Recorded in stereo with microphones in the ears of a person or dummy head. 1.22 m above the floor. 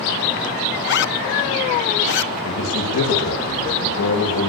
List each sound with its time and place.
0.8 s a zipper: 60° left (ahead or behind), 0.9 m
2.5 s a man speaking: 80° left, 7 m